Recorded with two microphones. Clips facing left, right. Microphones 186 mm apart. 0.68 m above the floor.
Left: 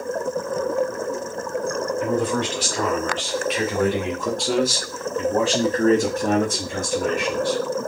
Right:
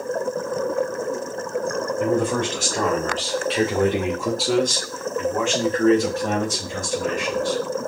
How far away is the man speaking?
About 1.6 m.